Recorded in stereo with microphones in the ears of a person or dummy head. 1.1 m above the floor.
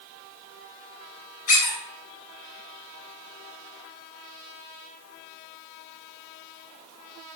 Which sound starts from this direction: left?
A squeak, at 1.5 s.